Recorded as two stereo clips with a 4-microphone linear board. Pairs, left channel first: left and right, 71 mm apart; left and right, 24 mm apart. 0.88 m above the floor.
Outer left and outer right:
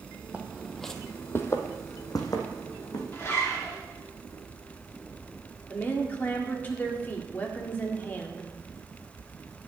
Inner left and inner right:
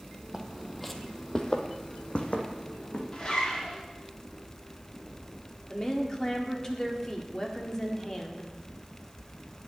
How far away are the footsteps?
About 1.3 m.